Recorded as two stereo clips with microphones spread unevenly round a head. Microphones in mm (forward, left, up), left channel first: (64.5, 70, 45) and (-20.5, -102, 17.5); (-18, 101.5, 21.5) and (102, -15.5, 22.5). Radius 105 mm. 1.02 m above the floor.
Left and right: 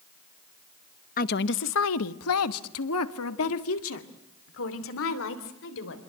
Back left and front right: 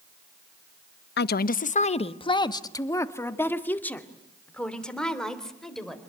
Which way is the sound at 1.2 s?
115° left.